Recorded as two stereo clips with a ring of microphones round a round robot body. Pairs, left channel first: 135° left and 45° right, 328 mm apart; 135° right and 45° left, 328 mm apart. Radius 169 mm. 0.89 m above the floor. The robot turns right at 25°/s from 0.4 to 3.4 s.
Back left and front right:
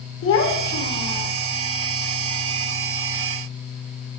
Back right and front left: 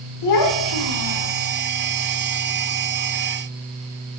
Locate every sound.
0.2 s a child speaking: 170° right, 1.5 m; by 1.3 s 145° right, 1.5 m